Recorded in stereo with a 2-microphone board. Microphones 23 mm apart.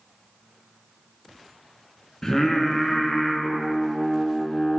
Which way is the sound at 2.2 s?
30° left (ahead or behind).